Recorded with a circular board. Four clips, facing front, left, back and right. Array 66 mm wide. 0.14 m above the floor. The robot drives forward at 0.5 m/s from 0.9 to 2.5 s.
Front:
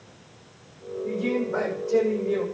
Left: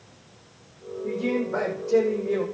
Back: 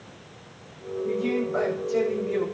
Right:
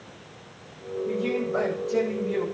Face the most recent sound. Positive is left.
turn(degrees=65)